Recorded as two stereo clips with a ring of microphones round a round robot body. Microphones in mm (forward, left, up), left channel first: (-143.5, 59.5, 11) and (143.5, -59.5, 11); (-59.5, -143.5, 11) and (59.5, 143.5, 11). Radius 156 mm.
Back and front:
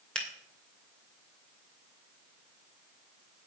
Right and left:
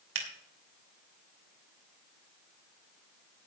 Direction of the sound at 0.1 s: 70° left.